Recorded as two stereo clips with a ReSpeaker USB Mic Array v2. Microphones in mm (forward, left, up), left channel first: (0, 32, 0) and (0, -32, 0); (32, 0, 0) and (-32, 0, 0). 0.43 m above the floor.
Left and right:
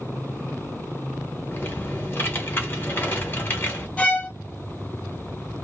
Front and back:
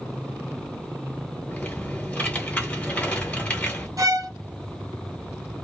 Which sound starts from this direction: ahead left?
Typing on a keyboard, at 1.5 s.